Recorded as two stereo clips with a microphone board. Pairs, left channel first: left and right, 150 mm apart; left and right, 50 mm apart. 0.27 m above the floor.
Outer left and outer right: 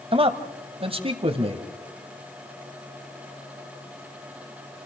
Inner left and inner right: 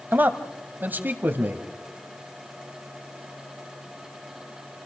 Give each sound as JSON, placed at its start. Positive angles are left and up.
{"t": 0.1, "sound": "a man speaking", "side_deg": -40, "distance_m": 1.5}